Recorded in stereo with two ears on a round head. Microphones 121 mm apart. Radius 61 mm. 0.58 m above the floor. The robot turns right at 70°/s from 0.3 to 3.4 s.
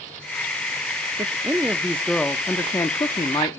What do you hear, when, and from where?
1.2 s a man speaking: 20° right (ahead or behind), 0.6 m; by 3.6 s 25° left (ahead or behind), 0.6 m